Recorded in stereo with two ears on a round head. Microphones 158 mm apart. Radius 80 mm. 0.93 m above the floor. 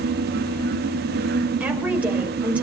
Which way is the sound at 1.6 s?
10° right (ahead or behind).